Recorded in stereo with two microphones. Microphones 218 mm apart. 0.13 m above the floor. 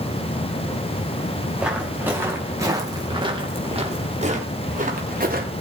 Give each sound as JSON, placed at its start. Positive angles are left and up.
{"t": 1.6, "sound": "footsteps", "side_deg": -5, "distance_m": 5.5}